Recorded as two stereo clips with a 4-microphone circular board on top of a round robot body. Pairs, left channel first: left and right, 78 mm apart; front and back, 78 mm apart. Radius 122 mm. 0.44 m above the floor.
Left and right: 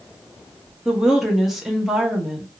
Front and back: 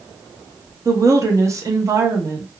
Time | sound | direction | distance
0.8 | a woman speaking | 175° right | 0.9 m